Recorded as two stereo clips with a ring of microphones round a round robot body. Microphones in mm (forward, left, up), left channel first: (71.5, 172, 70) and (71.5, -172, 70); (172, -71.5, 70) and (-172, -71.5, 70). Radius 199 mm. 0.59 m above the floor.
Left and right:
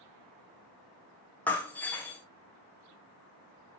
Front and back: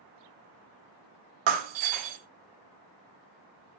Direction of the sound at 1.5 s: 175° left.